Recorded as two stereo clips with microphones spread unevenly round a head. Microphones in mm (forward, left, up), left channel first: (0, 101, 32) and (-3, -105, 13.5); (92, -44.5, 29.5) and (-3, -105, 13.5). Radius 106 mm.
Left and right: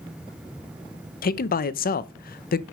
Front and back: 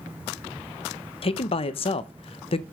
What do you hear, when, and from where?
1.2 s a man speaking: 55° left, 0.7 m